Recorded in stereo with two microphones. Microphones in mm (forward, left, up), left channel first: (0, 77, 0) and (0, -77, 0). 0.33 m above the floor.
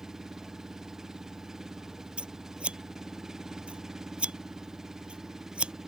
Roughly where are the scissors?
Centre.